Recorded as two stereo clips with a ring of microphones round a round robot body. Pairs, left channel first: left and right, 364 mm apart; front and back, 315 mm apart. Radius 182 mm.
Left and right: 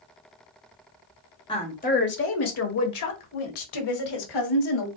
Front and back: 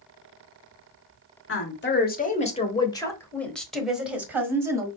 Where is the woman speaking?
20° left, 1.2 m; by 4.9 s 100° left, 2 m.